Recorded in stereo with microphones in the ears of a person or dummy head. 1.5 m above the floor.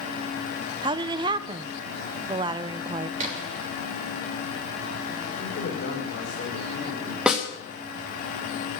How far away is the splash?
About 2.5 m.